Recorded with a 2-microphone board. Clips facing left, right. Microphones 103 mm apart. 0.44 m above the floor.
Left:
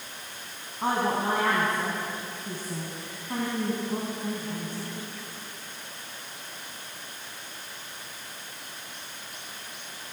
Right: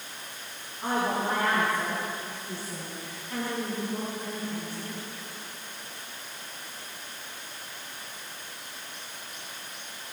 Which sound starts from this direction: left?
A woman speaking, at 0.8 s.